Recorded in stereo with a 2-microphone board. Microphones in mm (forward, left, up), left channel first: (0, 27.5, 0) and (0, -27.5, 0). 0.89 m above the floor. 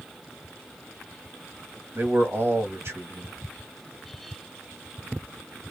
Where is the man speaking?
50° right (ahead or behind), 1.4 m.